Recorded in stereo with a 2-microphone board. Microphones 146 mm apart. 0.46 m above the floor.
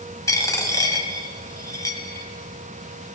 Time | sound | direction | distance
0.3 | a dropped coin | 25° left (ahead or behind) | 1.5 m